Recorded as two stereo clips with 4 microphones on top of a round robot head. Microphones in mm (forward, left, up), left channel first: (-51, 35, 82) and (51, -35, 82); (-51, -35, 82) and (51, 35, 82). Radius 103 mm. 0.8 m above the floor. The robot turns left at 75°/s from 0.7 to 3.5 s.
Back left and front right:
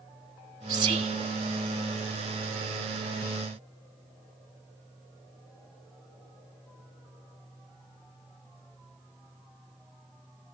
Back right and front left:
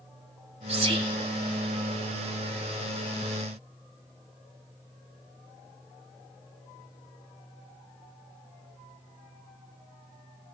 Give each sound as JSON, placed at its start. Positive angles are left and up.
{"t": 0.7, "sound": "whispering", "azimuth_deg": 20, "distance_m": 0.7}